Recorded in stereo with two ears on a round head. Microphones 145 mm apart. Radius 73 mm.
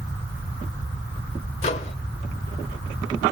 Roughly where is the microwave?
Left.